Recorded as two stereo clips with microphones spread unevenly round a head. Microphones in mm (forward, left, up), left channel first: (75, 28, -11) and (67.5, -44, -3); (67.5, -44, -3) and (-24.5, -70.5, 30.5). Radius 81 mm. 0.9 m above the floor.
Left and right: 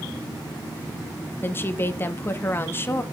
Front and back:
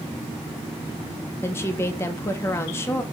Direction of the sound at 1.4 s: 45° left.